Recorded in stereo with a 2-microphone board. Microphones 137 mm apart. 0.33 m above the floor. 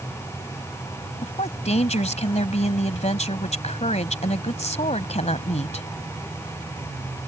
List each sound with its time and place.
1.2 s a woman speaking: 55° left (ahead or behind)